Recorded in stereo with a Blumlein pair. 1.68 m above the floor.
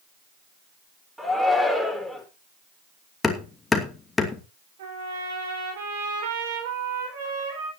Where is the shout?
Straight ahead, 4.5 m.